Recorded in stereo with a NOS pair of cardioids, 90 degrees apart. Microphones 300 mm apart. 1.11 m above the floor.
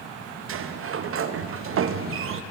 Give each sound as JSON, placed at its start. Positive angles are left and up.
{"t": 0.5, "sound": "a sliding door", "azimuth_deg": -45, "distance_m": 0.7}